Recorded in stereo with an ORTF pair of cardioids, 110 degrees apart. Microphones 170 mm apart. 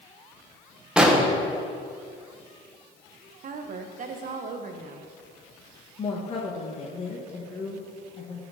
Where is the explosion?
5° right, 1.4 m.